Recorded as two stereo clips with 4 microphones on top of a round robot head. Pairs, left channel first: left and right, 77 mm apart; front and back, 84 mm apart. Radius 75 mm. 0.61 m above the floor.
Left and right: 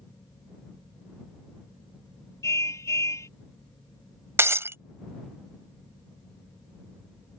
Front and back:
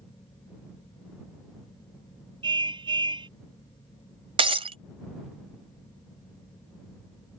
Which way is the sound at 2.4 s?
145° left.